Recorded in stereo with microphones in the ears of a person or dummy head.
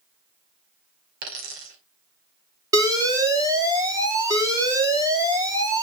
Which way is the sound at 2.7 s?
25° right (ahead or behind).